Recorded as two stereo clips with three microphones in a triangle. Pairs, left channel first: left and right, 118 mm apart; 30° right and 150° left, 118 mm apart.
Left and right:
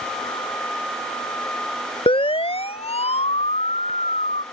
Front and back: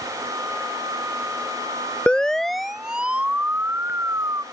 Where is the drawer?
No drawer in this recording.